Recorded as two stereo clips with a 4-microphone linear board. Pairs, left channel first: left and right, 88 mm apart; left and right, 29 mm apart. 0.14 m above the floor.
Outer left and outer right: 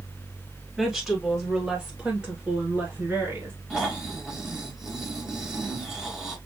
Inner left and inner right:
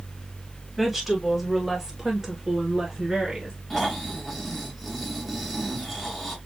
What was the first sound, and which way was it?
A woman speaking, centre (ahead or behind).